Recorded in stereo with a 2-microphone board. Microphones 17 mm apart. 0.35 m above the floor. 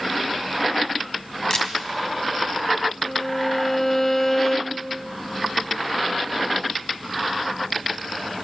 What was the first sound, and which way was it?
A camera shutter, 35° left (ahead or behind).